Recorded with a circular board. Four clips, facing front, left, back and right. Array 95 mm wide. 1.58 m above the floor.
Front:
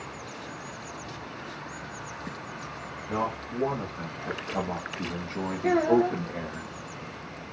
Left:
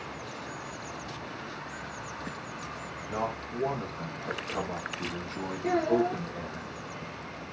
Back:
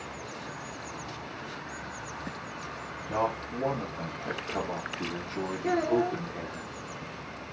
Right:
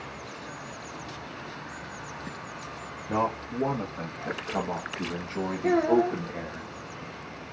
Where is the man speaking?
85° right, 2.5 m; by 6.6 s 25° right, 2 m.